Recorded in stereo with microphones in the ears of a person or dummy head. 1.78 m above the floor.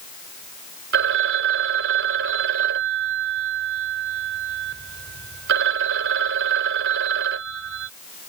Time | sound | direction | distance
0.9 | a phone ringing | 55° right (ahead or behind) | ?